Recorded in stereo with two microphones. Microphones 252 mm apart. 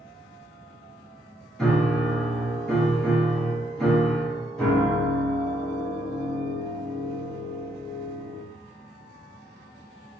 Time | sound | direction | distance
1.6 | a piano | centre (ahead or behind) | 0.8 m